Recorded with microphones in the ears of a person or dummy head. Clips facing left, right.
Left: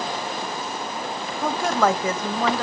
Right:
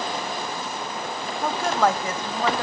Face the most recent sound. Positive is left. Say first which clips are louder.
# left 1 dB
turn(degrees=55)  # may be behind; listen again after turning